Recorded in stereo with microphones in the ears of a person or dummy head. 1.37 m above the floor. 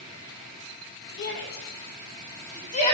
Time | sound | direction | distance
1.2 | a shout | 55° left (ahead or behind) | 2 m